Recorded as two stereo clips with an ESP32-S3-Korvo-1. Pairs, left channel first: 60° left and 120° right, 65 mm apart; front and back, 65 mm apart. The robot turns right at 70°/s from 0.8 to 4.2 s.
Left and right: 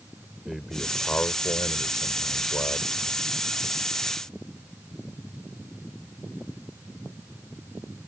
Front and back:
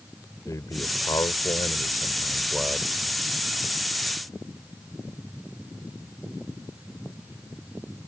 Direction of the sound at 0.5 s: 35° right.